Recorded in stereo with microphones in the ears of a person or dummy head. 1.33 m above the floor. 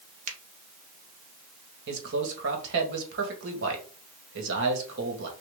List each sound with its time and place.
0.3 s a finger snap: 40° right (ahead or behind), 1.0 m
1.9 s a man speaking: 65° right (ahead or behind), 1.7 m